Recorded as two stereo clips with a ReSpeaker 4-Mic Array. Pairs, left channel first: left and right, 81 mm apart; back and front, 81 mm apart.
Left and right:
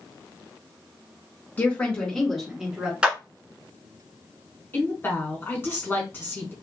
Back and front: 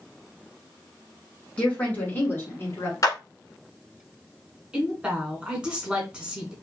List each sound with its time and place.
1.6 s a woman speaking: 125° left, 1.3 m; by 2.9 s 155° right, 1.5 m
3.0 s a clap: 160° right, 1.1 m
4.7 s a woman speaking: 65° left, 1.3 m